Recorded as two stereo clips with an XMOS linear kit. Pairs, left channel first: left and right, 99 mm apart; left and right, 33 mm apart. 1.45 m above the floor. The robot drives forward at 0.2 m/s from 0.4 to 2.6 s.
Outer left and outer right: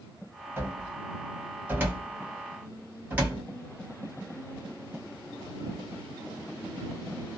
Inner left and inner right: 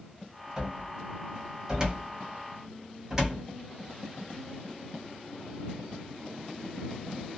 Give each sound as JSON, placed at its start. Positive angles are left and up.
{"t": 0.6, "sound": "a cupboard door", "side_deg": -25, "distance_m": 1.2}